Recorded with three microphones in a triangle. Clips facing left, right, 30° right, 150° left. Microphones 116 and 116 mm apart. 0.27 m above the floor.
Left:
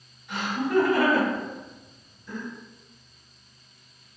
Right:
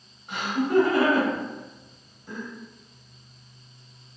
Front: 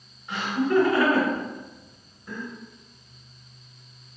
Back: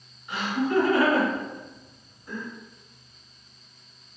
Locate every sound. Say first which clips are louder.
0.3 s laughter: right 2 dB, front 2 dB; 90° right, 2.0 m